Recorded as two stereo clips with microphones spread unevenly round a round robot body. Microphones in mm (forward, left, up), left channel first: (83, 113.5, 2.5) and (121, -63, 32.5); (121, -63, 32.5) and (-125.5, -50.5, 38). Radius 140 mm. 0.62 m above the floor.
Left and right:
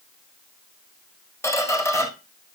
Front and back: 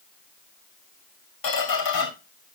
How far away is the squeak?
About 1.8 m.